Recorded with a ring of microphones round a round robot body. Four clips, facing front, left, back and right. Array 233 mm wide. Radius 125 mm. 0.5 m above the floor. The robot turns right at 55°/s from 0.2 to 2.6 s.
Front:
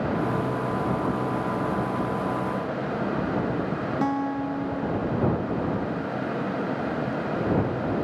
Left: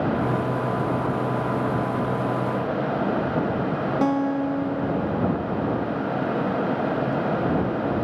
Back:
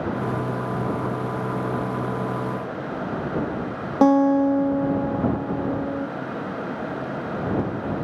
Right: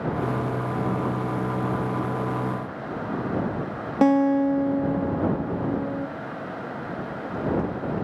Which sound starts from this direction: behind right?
A guitar, at 4.0 s.